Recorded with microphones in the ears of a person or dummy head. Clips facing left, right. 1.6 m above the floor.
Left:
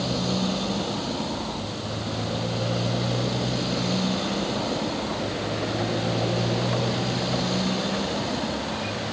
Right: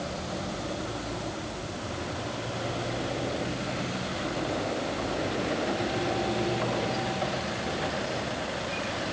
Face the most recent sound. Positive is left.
turn(degrees=90)